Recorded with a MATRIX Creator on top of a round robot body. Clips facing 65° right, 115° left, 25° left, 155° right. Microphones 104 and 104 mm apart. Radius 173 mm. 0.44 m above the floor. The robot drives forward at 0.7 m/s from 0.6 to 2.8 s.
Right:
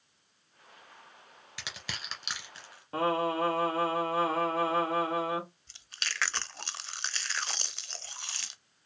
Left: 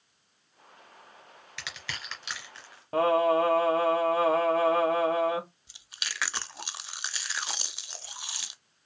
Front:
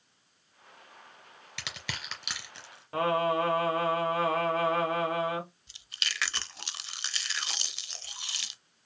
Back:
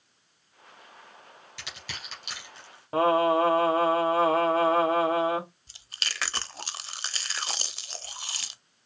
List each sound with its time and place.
1.6 s crushing: 5° left, 3 m; by 2.8 s 10° left, 2 m
2.9 s singing: 150° left, 2.5 m
5.7 s chewing: 175° right, 0.8 m